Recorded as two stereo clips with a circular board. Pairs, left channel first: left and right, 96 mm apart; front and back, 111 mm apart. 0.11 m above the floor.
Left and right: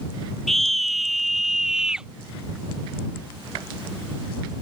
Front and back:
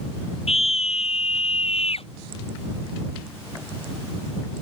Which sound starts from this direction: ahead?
A scream, at 0.5 s.